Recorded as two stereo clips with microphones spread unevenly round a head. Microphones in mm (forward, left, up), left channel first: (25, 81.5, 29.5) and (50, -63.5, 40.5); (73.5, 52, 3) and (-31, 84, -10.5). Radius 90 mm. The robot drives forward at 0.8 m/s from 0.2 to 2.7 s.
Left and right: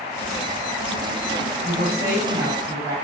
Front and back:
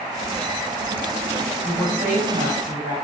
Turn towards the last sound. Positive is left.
turn(degrees=-150)